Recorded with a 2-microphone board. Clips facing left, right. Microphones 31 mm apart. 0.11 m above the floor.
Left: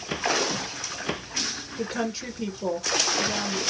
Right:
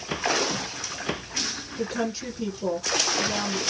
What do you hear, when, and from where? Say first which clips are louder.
1.8 s a woman speaking: right 1 dB; 5° left (ahead or behind), 1.4 m